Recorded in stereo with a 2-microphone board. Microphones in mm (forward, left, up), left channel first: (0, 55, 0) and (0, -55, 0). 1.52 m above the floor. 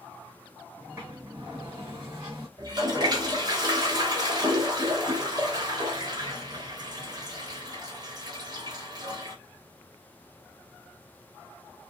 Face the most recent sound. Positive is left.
turn(degrees=-40)  # may be behind; listen again after turning